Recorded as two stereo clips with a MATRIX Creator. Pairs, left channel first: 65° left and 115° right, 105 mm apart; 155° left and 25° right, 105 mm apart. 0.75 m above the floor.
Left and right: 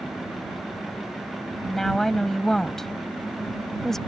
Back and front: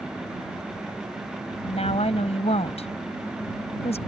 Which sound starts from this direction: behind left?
A woman speaking, at 1.6 s.